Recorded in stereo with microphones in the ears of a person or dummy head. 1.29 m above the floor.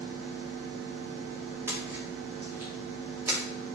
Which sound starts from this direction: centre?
A splash, at 1.7 s.